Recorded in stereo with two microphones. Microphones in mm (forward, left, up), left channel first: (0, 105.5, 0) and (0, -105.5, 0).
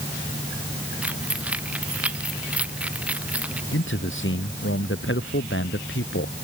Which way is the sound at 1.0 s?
5° right (ahead or behind).